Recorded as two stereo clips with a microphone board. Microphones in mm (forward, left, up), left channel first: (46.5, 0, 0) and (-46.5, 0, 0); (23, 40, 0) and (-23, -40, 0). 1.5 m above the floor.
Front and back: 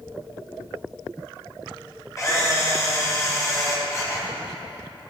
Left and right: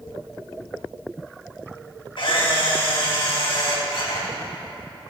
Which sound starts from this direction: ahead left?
A camera shutter, at 2.2 s.